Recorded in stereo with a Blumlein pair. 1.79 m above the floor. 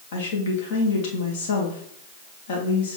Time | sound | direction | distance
0.1 | a woman speaking | 50° left | 1.7 m